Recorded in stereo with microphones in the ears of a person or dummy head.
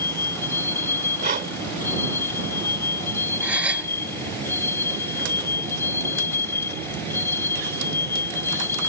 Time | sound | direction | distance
0.0 | a vehicle | 15° left (ahead or behind) | ?
1.2 | breathing | 40° right (ahead or behind) | ?
3.4 | a gasp | 5° right (ahead or behind) | ?